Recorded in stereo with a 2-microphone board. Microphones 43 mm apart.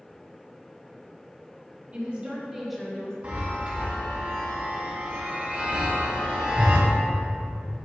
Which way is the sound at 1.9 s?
40° right (ahead or behind).